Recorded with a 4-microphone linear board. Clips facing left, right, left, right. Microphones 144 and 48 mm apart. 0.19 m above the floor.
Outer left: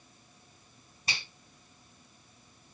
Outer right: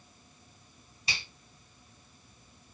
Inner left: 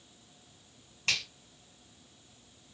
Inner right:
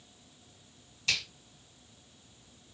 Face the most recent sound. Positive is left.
turn(degrees=45)  # may be behind; listen again after turning